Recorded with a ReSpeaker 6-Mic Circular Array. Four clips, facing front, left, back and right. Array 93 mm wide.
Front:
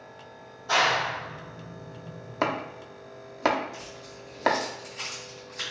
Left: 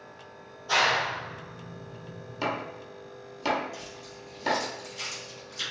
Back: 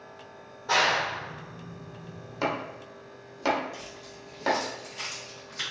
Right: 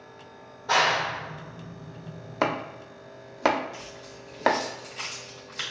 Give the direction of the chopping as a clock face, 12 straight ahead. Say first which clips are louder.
Right 4 dB, front 2 dB; 2 o'clock.